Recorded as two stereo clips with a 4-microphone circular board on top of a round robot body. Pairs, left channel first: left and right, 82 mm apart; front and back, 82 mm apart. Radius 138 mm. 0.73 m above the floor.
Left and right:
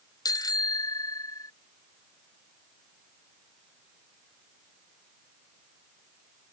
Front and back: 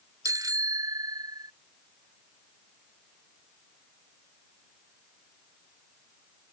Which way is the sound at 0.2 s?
130° left.